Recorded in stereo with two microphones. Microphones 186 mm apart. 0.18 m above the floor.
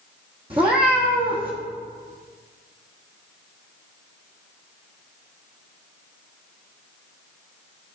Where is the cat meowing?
30° right (ahead or behind), 1.0 m.